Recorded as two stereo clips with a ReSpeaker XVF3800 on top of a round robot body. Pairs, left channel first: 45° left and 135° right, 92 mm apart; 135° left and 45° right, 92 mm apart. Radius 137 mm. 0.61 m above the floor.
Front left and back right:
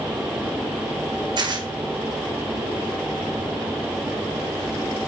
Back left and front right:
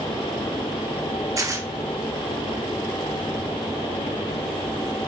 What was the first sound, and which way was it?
Tearing paper, 100° right.